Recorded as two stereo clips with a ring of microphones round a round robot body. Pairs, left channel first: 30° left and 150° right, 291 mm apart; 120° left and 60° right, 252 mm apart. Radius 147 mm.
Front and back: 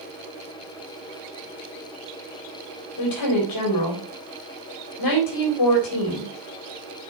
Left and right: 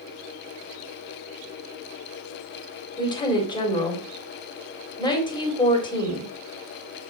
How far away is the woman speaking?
About 3.5 m.